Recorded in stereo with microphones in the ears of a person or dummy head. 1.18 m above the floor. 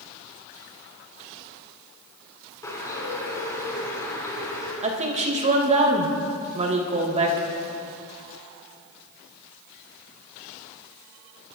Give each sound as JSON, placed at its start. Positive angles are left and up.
{"t": 2.6, "sound": "a bird", "side_deg": 15, "distance_m": 3.5}
{"t": 4.8, "sound": "a woman speaking", "side_deg": -40, "distance_m": 2.0}